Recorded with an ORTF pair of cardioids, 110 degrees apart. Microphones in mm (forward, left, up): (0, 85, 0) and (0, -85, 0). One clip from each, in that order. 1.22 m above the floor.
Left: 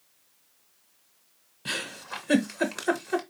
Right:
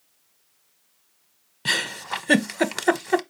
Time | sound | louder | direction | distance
1.6 | a giggle | right 8 dB | 40° right | 0.7 m